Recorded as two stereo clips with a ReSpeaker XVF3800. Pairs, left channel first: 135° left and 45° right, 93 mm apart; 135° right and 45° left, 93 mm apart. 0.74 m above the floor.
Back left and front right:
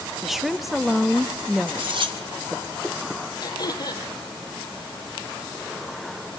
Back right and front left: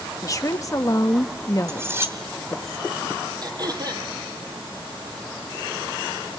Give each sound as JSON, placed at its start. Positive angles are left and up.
{"t": 0.2, "sound": "a woman speaking", "azimuth_deg": -130, "distance_m": 1.2}
{"t": 1.7, "sound": "cutlery clinking", "azimuth_deg": -20, "distance_m": 3.0}
{"t": 3.4, "sound": "throat clearing", "azimuth_deg": 90, "distance_m": 4.0}